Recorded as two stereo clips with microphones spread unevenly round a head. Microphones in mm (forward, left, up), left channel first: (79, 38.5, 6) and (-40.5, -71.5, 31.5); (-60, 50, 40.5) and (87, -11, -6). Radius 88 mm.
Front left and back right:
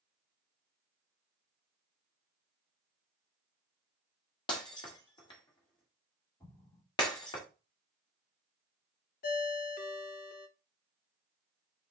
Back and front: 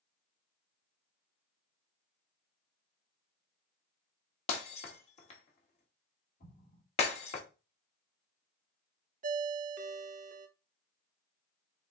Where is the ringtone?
10° left, 0.6 m.